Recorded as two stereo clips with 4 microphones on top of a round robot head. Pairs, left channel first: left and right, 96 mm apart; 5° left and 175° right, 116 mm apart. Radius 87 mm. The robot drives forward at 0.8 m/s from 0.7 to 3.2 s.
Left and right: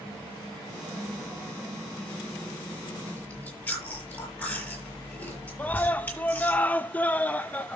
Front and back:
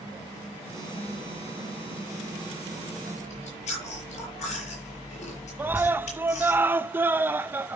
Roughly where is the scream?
Behind left.